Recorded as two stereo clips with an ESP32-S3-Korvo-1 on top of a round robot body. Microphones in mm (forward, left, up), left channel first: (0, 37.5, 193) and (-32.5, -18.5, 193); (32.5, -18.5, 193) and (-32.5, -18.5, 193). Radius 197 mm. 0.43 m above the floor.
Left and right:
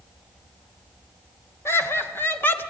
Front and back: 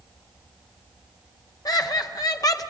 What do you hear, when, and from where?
1.6 s laughter: 10° left, 2.5 m; by 2.7 s straight ahead, 1.7 m